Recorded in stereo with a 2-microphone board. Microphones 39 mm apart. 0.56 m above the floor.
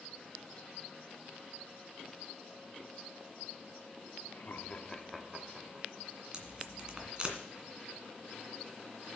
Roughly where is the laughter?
Left.